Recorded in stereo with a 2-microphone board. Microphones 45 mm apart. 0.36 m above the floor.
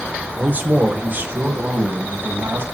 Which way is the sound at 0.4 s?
35° right (ahead or behind).